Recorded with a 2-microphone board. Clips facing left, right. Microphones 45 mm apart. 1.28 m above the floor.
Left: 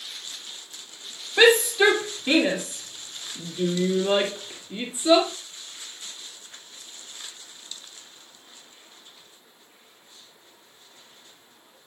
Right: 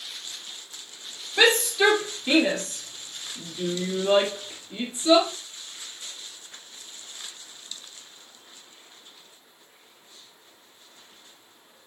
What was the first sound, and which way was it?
A shout, 10° left (ahead or behind).